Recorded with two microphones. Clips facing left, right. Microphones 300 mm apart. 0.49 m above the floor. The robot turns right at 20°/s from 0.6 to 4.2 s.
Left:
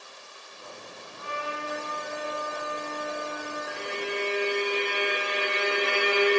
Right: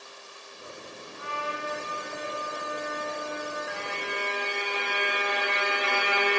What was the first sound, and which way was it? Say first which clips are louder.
A trumpet: left 1 dB; 60° left.